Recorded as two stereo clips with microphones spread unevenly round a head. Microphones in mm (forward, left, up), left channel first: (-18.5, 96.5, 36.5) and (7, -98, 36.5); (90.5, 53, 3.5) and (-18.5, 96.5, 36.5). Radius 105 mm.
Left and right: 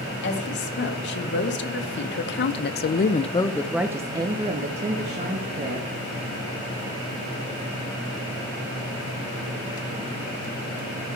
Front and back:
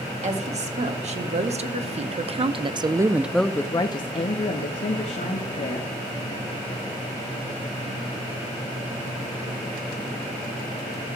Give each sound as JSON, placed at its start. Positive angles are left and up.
{"t": 0.2, "sound": "a woman speaking", "azimuth_deg": 130, "distance_m": 1.9}